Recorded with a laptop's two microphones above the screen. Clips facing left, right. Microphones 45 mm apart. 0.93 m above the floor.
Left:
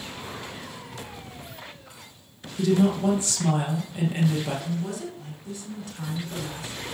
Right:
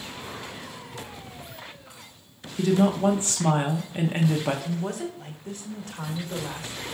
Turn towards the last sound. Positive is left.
turn(degrees=-45)  # may be behind; listen again after turning